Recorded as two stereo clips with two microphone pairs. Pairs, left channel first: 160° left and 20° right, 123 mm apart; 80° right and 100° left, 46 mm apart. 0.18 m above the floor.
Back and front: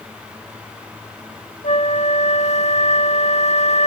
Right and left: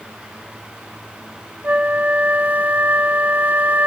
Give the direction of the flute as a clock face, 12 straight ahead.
7 o'clock.